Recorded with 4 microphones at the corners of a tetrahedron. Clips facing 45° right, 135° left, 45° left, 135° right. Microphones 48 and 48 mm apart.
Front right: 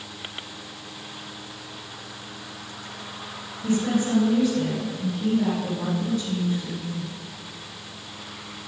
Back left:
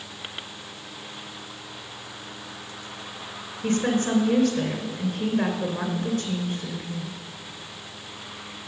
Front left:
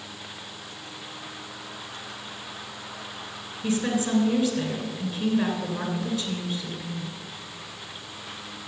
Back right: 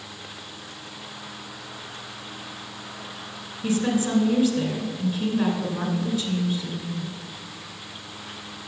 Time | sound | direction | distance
3.6 | a woman speaking | 155° left | 2.5 m